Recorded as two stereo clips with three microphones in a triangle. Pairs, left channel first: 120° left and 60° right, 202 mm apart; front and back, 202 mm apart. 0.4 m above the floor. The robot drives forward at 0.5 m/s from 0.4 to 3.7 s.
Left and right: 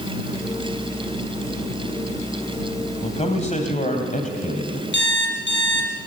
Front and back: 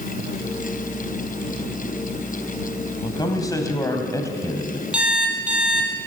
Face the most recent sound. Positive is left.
turn(degrees=95)